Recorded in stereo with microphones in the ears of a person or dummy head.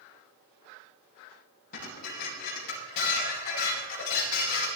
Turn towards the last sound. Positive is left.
turn(degrees=55)  # may be behind; listen again after turning